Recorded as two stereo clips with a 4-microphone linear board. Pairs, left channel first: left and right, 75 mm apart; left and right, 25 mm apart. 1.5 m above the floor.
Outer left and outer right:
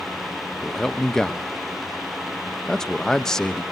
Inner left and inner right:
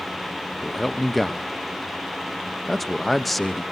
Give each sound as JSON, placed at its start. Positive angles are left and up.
{"t": 0.6, "sound": "a man speaking", "side_deg": 10, "distance_m": 1.0}